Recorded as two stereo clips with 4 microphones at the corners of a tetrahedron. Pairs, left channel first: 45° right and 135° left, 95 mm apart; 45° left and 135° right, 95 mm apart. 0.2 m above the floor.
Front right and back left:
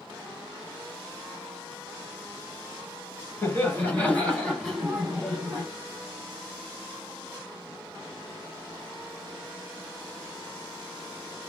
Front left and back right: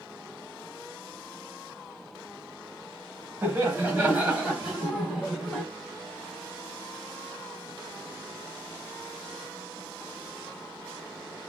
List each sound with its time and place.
3.4 s laughter: 80° right, 1.6 m; by 5.6 s 135° left, 1.4 m